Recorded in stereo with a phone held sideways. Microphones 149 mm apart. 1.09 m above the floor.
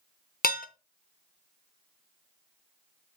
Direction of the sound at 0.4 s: 80° left.